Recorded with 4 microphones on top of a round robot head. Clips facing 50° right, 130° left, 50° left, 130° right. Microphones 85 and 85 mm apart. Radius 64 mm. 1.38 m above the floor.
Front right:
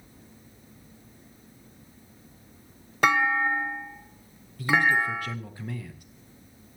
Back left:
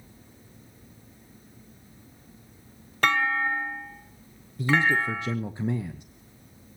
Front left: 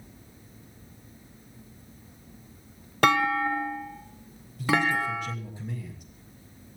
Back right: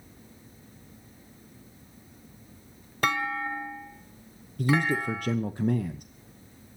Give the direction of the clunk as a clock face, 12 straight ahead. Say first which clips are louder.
Front right 2 dB, front left 6 dB; 11 o'clock.